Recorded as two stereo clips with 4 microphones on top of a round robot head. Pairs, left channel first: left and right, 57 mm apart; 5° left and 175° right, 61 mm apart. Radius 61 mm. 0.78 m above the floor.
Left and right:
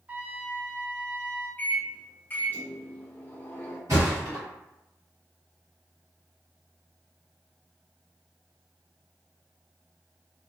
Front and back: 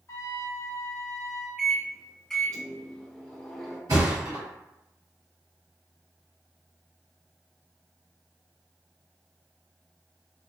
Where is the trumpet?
30° right, 0.6 m.